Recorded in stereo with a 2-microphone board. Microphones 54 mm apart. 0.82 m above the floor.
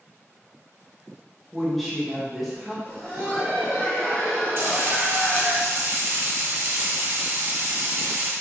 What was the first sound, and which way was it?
A woman speaking, centre (ahead or behind).